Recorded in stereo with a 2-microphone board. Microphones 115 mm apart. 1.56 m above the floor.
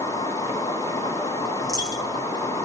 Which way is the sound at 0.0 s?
55° left (ahead or behind).